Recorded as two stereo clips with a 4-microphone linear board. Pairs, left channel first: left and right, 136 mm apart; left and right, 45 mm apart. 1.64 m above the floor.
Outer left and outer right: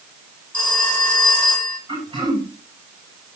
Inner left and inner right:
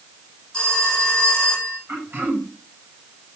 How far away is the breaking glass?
I don't hear breaking glass.